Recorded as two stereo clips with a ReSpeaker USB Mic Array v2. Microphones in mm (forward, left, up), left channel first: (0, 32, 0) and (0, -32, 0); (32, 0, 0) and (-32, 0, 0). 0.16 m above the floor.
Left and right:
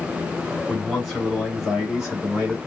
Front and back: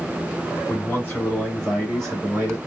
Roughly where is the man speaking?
Ahead.